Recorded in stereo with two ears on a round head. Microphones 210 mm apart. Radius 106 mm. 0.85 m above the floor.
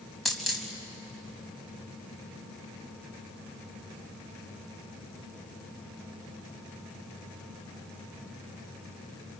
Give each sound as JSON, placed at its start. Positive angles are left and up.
{"t": 0.2, "sound": "a dropped coin", "side_deg": 0, "distance_m": 3.0}